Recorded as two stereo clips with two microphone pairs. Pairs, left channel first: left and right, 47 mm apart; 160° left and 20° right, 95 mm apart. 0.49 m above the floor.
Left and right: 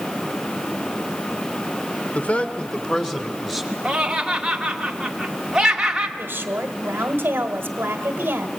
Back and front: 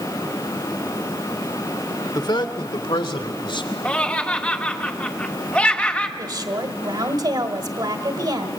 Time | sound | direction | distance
2.1 | a man speaking | 135° left | 1.2 m
3.9 | laughter | 150° right | 1.0 m
6.2 | a woman speaking | 60° right | 1.7 m